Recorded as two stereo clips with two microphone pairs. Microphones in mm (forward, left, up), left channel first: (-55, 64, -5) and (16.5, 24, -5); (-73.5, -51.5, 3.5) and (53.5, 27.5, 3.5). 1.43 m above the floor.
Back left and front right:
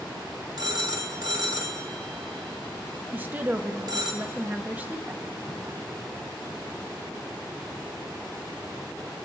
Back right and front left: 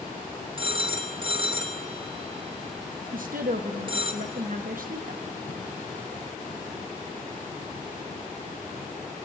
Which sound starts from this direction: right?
A splash, at 5.5 s.